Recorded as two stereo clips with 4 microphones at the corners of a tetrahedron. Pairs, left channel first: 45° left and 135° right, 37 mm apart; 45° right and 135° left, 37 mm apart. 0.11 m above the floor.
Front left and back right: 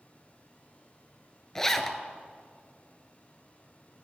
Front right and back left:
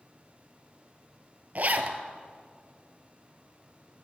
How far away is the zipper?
About 0.8 m.